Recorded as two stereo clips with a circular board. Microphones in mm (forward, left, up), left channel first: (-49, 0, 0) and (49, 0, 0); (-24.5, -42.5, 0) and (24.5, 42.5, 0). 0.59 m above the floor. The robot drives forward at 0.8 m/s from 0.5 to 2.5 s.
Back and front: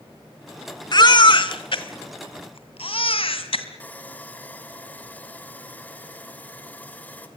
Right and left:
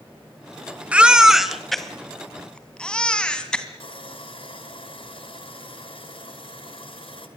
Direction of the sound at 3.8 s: 105° right.